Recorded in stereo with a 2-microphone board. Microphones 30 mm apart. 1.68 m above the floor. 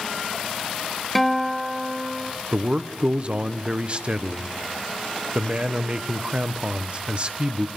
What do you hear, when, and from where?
1.1 s a guitar: 5° left (ahead or behind), 1.3 m
2.5 s a man speaking: 40° right (ahead or behind), 1.1 m